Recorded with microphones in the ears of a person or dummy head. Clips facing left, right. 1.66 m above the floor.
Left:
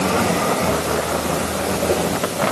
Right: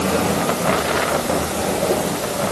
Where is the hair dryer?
No hair dryer in this recording.